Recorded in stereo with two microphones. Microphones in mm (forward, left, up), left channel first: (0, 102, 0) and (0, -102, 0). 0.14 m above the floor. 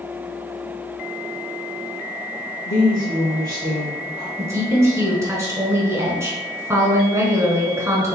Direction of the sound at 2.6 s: 45° left (ahead or behind).